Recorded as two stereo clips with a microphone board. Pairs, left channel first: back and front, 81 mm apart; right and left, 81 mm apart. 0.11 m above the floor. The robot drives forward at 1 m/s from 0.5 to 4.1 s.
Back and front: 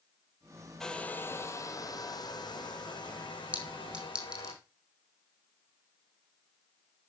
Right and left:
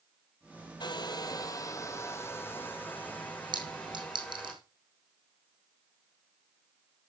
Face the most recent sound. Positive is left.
turn(degrees=80)